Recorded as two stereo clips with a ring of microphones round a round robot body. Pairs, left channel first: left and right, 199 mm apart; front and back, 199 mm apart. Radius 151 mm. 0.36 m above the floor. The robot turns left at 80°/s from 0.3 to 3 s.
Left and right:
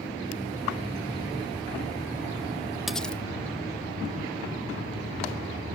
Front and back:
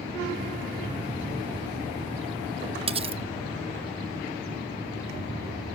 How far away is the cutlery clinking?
About 0.6 m.